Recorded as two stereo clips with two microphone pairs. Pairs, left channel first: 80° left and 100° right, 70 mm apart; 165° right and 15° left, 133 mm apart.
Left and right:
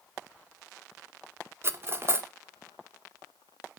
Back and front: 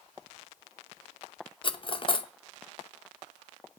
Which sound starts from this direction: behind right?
Cutlery clinking, at 1.6 s.